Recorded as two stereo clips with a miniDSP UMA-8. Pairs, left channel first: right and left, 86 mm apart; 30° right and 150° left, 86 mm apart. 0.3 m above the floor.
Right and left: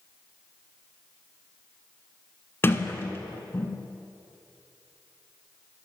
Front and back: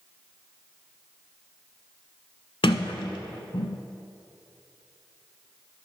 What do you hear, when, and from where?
2.6 s a sliding door: 25° right, 0.8 m